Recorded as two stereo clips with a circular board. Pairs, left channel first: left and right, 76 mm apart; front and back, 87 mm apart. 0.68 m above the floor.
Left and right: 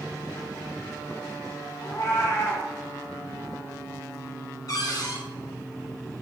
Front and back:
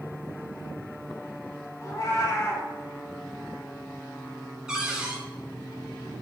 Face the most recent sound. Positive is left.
turn(degrees=100)